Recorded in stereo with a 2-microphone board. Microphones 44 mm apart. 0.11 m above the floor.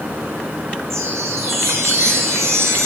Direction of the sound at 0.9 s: 80° right.